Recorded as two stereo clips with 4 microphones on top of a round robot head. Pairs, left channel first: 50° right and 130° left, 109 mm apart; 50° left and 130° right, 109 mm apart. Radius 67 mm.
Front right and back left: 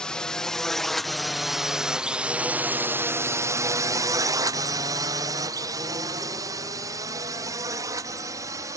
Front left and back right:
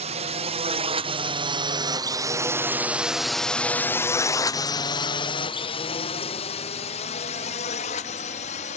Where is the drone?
135° right; by 8.8 s 65° left.